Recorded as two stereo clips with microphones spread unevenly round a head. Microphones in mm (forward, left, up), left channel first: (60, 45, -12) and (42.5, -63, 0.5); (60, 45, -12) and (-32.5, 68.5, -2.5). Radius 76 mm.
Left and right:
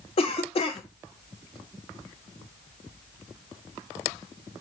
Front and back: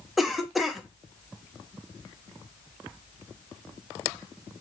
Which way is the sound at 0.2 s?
75° left.